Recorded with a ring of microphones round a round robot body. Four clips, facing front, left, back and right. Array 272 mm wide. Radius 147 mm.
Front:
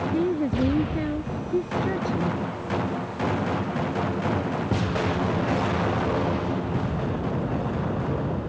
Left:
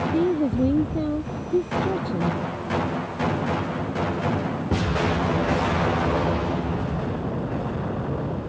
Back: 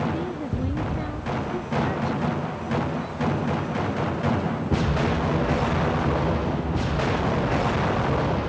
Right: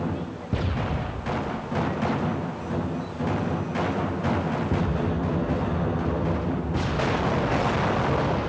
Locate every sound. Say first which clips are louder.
0.1 s a woman speaking: left 11 dB, front 6 dB; 65° left